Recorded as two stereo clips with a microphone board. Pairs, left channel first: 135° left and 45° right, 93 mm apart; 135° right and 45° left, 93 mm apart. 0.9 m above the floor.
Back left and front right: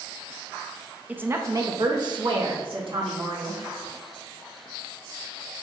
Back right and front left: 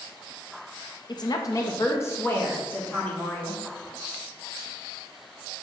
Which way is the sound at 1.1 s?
115° right.